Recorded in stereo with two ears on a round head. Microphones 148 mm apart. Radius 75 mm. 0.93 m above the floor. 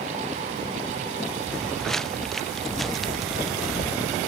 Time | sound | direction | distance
1.5 | footsteps | 5° left (ahead or behind) | ?